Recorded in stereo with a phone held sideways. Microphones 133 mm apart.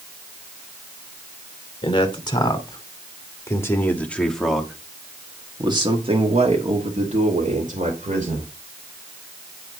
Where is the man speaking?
40° left (ahead or behind), 2.5 m; by 8.5 s 75° right (ahead or behind), 2.5 m.